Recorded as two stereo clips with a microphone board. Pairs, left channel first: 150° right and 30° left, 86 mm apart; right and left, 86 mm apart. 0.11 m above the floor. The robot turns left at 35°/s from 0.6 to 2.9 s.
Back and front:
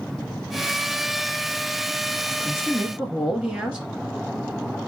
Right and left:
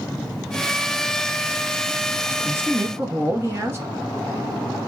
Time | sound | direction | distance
2.3 | a man speaking | 115° left | 1.2 m